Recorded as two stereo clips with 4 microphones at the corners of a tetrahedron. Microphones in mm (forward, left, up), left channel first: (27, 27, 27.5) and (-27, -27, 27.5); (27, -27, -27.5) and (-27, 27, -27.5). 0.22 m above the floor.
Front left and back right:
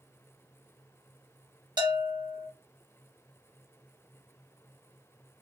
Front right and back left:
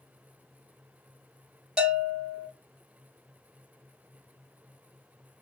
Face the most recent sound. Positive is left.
turn(degrees=-145)